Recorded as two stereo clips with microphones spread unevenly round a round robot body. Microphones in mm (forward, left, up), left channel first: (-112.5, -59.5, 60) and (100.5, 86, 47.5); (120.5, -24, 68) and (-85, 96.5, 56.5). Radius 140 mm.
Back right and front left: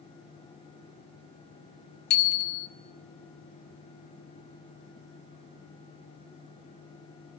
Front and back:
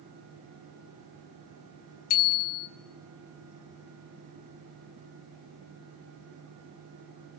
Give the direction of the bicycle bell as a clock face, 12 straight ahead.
3 o'clock.